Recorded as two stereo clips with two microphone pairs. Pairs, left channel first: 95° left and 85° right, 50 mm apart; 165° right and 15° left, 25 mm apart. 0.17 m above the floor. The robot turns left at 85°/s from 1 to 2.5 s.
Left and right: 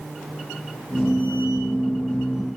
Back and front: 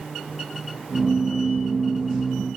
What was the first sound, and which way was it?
Only background noise.